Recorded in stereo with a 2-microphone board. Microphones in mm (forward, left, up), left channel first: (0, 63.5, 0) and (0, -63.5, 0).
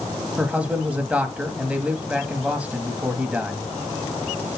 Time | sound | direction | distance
0.4 | a man speaking | 10° right (ahead or behind) | 1.1 m